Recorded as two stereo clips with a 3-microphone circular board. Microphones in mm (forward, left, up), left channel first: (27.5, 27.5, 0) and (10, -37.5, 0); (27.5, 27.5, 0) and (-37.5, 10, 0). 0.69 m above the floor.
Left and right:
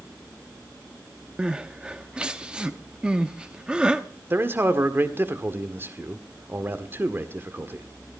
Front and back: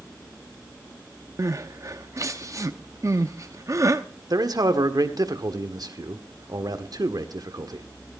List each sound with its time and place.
1.4 s crying: straight behind, 0.9 m
4.3 s a man speaking: 160° right, 1.5 m